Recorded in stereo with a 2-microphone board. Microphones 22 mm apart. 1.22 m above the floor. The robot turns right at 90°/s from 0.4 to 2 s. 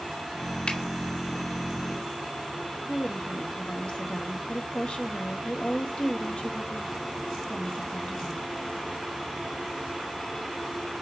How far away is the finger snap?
About 2.5 m.